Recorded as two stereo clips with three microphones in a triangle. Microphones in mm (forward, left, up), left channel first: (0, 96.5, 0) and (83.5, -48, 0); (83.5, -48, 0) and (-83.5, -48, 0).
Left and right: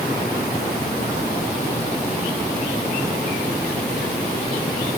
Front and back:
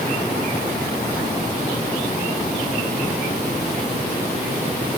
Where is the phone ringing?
I don't hear a phone ringing.